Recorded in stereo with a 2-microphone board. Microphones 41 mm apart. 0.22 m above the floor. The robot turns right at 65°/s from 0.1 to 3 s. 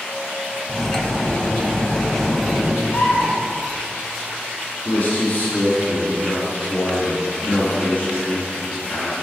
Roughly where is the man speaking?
Left.